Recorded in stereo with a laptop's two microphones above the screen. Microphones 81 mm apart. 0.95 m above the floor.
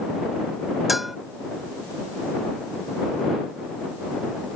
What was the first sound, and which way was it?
A bell, 5° right (ahead or behind).